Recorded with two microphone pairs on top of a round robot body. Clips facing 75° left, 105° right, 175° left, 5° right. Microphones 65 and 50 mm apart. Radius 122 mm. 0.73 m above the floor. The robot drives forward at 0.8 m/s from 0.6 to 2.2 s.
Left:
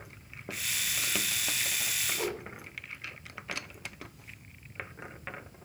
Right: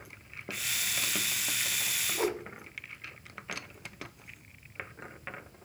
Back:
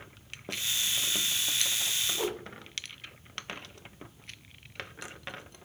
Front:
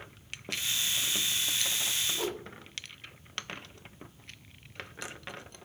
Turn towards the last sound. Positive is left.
turn(degrees=-105)